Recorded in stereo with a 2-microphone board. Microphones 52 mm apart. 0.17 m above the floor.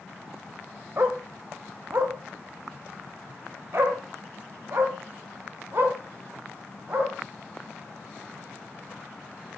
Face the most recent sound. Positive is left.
turn(degrees=-50)  # may be behind; listen again after turning